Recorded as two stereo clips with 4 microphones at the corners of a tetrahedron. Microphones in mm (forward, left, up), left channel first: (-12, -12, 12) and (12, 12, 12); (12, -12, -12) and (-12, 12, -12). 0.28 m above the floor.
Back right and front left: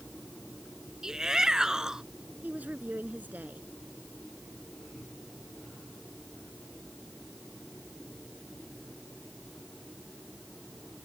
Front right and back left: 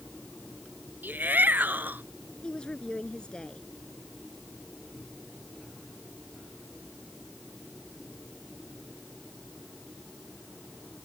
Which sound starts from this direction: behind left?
A shout, at 1.0 s.